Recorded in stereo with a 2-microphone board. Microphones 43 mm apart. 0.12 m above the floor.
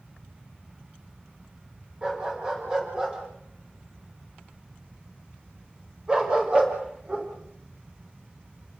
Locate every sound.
2.0 s a dog barking: 20° right (ahead or behind), 9 m; by 7.3 s 25° right (ahead or behind), 6 m